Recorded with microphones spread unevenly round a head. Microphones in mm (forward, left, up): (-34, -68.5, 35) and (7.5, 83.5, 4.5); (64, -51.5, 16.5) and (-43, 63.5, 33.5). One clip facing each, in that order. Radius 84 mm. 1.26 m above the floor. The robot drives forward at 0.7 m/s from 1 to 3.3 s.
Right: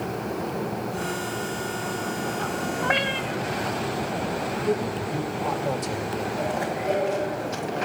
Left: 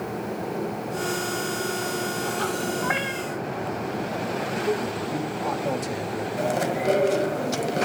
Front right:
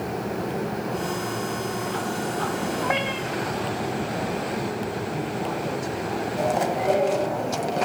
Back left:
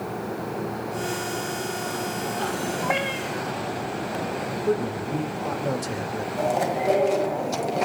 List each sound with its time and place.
2.8 s a cat meowing: 140° right, 1.7 m; by 3.4 s 145° right, 2 m
4.7 s a man speaking: 160° left, 2 m
6.4 s chewing: 50° left, 1.4 m